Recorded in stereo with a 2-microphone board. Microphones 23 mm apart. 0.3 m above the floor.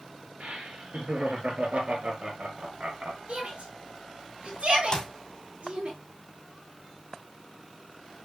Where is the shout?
60° right (ahead or behind), 5.5 m.